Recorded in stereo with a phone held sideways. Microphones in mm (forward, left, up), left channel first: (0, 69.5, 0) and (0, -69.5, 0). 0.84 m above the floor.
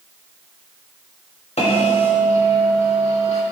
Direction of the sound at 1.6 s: 50° left (ahead or behind).